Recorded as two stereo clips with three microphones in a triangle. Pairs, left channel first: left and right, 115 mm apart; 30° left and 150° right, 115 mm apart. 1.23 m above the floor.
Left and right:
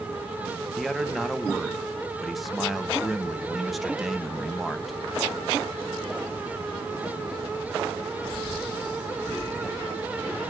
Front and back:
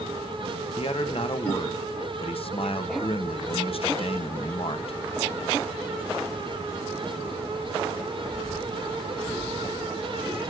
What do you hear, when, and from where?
0.8 s a man speaking: straight ahead, 1.2 m